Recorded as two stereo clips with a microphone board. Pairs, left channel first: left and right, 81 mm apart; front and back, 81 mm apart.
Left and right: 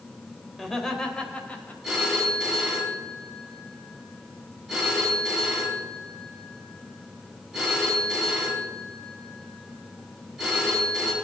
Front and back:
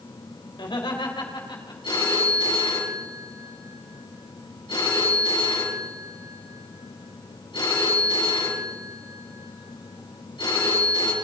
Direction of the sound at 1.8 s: 5° right.